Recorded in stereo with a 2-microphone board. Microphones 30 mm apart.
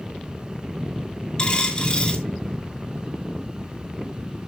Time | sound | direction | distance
1.4 | a dropped coin | 25° left (ahead or behind) | 2 m